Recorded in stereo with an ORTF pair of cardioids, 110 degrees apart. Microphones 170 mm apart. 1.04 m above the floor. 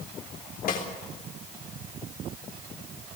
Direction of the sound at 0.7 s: 55° left.